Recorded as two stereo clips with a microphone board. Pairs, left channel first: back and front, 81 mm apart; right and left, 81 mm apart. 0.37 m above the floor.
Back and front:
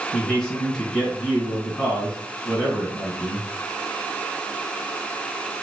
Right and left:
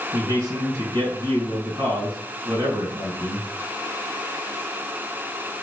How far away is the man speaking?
About 1.7 m.